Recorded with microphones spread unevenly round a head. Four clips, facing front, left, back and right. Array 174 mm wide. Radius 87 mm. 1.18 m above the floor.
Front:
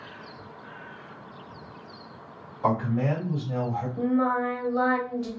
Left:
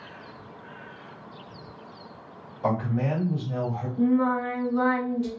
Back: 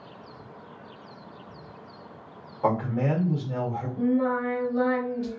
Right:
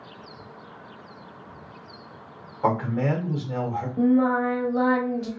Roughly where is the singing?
Ahead right.